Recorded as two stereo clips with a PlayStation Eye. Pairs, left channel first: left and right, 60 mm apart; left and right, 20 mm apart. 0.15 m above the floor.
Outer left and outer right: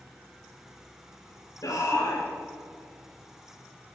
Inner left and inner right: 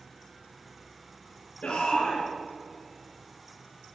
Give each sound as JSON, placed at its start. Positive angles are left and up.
{"t": 1.6, "sound": "a shout", "side_deg": 65, "distance_m": 4.0}